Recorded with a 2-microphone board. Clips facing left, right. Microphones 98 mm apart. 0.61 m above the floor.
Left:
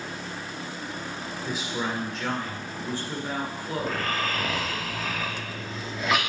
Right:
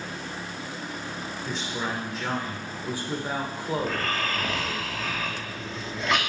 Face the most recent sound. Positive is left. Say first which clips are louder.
# left 2 dB
turn(degrees=5)  # may be behind; listen again after turning